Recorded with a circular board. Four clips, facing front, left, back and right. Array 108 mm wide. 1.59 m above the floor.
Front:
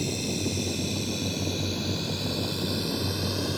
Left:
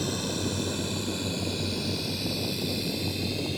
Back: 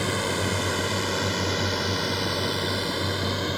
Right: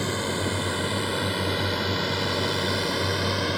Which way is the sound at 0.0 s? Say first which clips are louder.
Right 3 dB, back 4 dB; 150° right.